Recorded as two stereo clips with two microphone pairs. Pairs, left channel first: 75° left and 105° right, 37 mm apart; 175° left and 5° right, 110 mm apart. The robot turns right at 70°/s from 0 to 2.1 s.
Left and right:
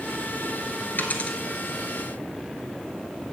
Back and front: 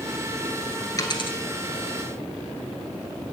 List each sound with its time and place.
1.0 s a dropped coin: 115° left, 1.5 m; by 1.4 s 145° left, 1.5 m